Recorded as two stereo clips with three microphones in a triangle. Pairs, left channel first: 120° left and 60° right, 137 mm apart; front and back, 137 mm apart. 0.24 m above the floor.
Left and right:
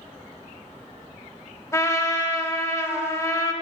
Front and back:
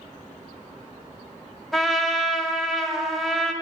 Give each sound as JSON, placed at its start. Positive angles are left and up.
{"t": 1.7, "sound": "a trumpet", "azimuth_deg": 90, "distance_m": 0.7}